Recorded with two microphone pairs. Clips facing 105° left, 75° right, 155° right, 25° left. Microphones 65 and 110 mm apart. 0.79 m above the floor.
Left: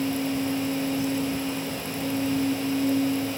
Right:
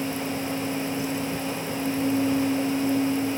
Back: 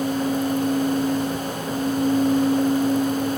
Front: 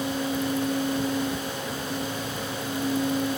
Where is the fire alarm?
I don't hear a fire alarm.